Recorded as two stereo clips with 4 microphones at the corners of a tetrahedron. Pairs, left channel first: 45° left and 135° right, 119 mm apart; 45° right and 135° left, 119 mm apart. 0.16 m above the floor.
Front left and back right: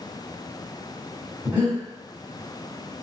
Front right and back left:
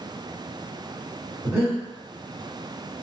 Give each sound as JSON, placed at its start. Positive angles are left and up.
{"t": 1.4, "sound": "breathing", "azimuth_deg": 170, "distance_m": 1.8}